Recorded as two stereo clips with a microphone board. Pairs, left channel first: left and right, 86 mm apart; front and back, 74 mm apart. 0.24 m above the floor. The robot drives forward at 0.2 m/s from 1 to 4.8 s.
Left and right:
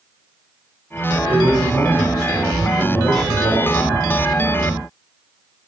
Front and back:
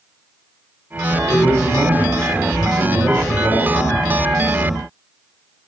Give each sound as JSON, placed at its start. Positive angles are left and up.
{"t": 1.3, "sound": "a man speaking", "azimuth_deg": -130, "distance_m": 1.5}